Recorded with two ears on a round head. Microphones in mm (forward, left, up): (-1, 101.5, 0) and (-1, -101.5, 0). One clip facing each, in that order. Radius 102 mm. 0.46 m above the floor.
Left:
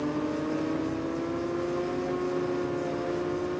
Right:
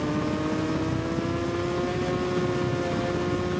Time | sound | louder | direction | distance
0.0 | a helicopter | right 2 dB | 65° right (ahead or behind) | ?